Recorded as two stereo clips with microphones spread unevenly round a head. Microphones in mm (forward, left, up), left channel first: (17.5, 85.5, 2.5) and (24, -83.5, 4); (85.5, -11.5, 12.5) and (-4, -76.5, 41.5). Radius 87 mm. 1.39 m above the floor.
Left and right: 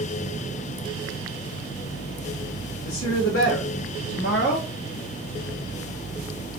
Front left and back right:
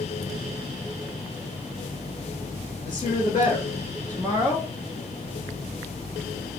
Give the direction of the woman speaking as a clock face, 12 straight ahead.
9 o'clock.